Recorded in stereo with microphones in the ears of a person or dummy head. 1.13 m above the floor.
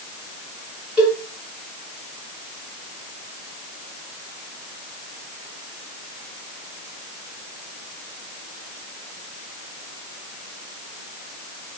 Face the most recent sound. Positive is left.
turn(degrees=-10)  # may be behind; listen again after turning